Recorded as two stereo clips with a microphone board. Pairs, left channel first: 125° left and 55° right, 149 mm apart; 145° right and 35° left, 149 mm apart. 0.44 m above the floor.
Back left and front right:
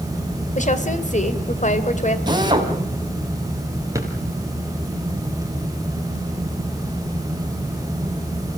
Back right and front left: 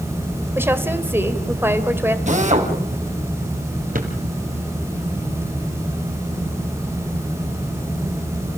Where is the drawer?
10° left, 3 m.